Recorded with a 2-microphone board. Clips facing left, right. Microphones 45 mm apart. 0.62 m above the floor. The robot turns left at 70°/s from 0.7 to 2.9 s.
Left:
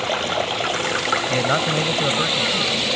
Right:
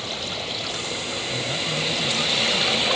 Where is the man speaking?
105° left; by 2.9 s straight ahead.